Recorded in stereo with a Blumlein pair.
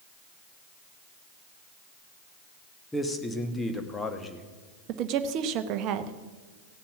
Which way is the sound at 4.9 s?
40° right.